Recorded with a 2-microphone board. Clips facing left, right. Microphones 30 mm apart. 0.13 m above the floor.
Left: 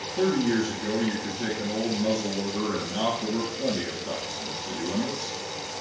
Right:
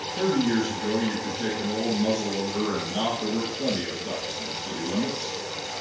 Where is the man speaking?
15° right (ahead or behind), 1.3 m.